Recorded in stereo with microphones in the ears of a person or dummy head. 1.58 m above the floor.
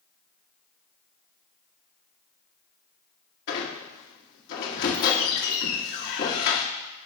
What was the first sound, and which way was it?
A squeak, 55° left (ahead or behind).